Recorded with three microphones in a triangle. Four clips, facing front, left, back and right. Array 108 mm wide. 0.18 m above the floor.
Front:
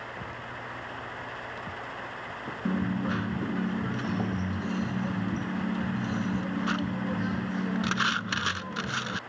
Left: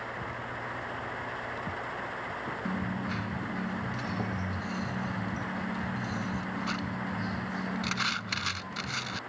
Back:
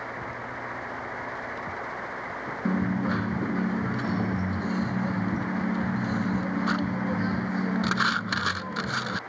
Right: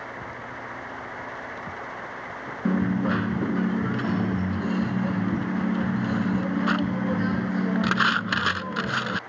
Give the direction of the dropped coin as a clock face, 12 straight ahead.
3 o'clock.